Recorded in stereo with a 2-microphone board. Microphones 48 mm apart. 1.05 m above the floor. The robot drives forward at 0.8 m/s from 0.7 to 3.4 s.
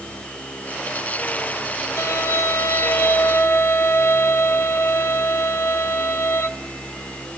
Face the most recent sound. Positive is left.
turn(degrees=50)  # may be behind; listen again after turning